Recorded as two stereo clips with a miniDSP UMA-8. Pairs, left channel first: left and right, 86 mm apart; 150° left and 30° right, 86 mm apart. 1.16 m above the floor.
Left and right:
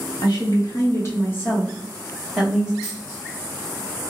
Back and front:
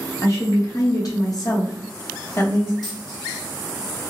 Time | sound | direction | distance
0.2 | a woman speaking | 105° left | 1.1 m
2.8 | a dropped coin | 130° left | 1.4 m